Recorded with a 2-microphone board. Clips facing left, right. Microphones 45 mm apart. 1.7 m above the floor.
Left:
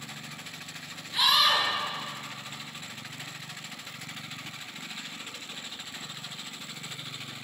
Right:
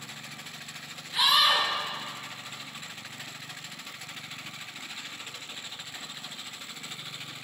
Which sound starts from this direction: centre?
A scream, at 1.1 s.